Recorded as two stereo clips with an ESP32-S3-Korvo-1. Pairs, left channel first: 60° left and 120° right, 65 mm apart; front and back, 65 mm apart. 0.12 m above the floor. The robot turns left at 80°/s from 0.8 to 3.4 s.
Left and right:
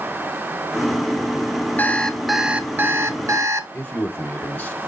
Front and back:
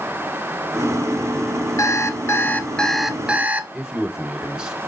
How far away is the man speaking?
About 1.3 m.